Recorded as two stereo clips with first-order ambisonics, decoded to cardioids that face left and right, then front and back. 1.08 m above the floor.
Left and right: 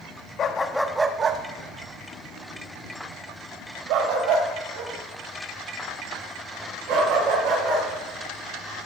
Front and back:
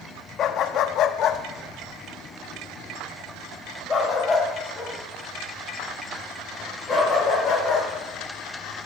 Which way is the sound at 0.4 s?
45° left.